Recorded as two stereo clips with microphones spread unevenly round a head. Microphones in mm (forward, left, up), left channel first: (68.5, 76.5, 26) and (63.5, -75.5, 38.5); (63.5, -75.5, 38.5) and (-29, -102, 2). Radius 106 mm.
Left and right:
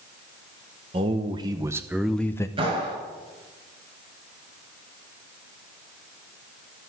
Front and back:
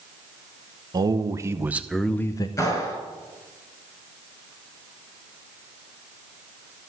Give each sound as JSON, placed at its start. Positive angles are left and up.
{"t": 0.9, "sound": "a man speaking", "azimuth_deg": -150, "distance_m": 1.1}
{"t": 2.6, "sound": "a clap", "azimuth_deg": -40, "distance_m": 7.0}